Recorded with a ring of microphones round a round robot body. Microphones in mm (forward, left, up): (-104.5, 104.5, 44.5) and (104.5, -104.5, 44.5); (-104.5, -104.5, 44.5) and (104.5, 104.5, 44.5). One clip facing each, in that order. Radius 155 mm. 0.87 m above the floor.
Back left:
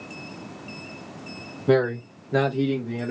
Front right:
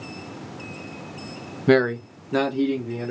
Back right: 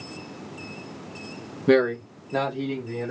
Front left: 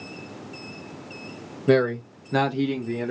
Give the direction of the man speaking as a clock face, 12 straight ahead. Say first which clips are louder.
Front right 2 dB, back right 1 dB; 2 o'clock.